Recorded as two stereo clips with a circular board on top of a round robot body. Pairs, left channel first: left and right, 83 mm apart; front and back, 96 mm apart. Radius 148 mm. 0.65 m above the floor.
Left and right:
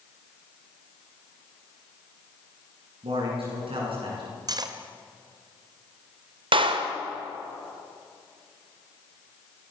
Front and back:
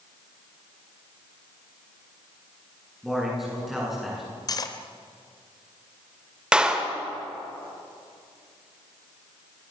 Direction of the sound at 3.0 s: 90° right.